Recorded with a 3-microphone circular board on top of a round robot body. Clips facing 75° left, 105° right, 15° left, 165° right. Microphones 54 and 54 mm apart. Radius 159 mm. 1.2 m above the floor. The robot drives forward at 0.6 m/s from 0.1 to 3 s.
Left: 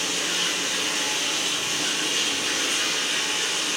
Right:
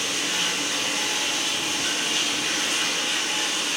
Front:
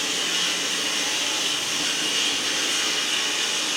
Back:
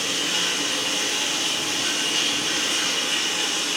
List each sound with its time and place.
0.0 s running water: 110° left, 1.1 m; by 3.8 s 165° left, 2 m